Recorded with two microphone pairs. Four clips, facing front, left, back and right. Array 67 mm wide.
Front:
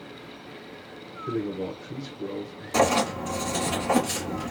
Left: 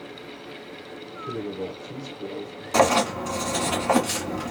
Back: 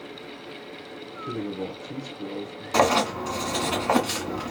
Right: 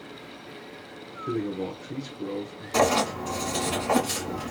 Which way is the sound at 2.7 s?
145° left.